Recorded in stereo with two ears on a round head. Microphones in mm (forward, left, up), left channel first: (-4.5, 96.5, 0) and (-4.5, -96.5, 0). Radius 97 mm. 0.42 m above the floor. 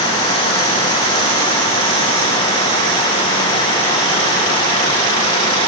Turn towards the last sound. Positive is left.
No sound to turn to.